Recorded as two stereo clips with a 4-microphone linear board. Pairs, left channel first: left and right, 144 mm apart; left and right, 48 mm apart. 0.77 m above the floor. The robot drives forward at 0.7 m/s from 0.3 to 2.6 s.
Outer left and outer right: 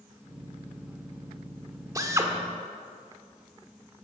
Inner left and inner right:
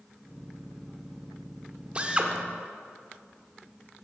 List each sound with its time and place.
1.9 s a drill: 25° right (ahead or behind), 1.3 m; by 2.3 s 20° right (ahead or behind), 1.5 m